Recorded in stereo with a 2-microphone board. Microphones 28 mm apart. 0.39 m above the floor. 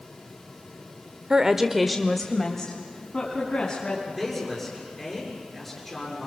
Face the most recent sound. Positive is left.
turn(degrees=0)  # may be behind; listen again after turning